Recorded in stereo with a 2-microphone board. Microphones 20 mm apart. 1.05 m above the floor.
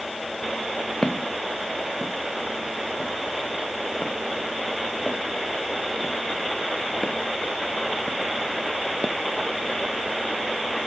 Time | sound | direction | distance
1.0 | footsteps | 50° left (ahead or behind) | ?